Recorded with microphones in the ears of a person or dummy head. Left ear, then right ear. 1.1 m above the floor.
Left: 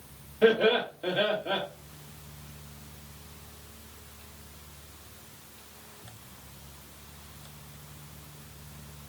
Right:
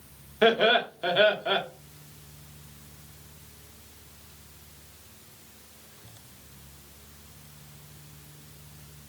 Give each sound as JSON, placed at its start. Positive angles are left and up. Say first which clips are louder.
{"t": 0.4, "sound": "laughter", "louder": "right 2 dB", "side_deg": -45, "distance_m": 1.2}